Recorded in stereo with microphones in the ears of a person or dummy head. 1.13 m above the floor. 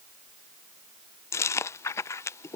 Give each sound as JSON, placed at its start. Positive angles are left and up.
{"t": 1.3, "sound": "chewing", "side_deg": 15}